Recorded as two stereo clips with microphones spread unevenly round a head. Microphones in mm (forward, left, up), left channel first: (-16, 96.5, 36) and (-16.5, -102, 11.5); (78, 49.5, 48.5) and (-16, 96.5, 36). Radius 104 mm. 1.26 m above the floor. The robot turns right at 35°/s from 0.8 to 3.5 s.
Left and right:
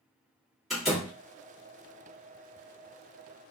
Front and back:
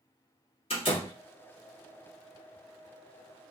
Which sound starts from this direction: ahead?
A door slam, at 0.7 s.